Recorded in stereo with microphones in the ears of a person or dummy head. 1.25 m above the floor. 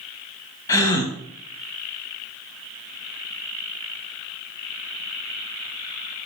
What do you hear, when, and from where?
0.7 s a gasp: 20° left (ahead or behind), 1.1 m